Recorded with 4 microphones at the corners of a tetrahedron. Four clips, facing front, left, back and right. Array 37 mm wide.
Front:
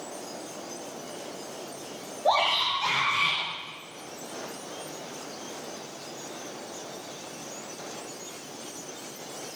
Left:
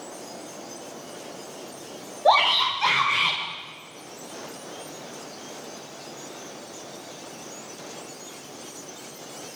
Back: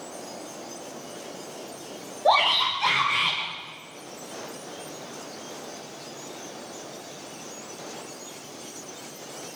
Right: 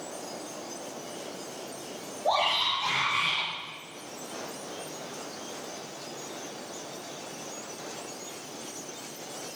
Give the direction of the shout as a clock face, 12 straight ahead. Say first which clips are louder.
Left 7 dB, back 3 dB; 8 o'clock.